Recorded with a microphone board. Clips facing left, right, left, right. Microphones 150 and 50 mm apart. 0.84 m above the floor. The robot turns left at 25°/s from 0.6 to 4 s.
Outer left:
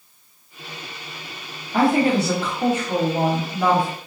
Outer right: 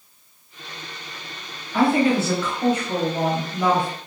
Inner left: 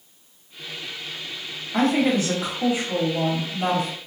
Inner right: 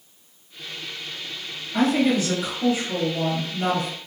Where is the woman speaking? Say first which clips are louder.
Outer left 1 dB, even; 60° left, 1.5 m; by 3.9 s 5° left, 1.5 m.